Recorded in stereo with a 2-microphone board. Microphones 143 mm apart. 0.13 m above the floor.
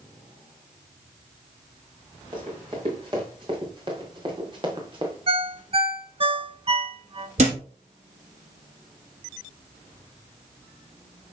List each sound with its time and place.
2.3 s running footsteps: 30° right (ahead or behind), 4 m; by 5.2 s 35° right (ahead or behind), 2.5 m
5.3 s a ringtone: 40° right (ahead or behind), 0.6 m
7.4 s a thud: 55° right (ahead or behind), 2.5 m